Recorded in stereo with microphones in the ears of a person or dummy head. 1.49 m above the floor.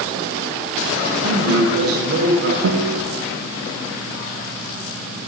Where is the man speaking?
55° right (ahead or behind), 5.5 m.